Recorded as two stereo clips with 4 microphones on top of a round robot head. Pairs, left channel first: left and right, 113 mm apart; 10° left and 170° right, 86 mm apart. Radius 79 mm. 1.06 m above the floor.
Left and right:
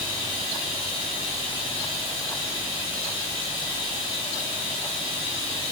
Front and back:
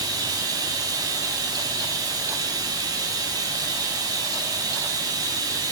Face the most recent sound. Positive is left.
turn(degrees=150)